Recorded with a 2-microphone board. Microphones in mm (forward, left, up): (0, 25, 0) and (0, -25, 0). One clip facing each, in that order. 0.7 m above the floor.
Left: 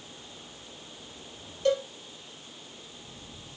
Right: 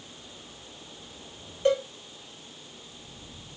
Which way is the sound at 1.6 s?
30° right (ahead or behind).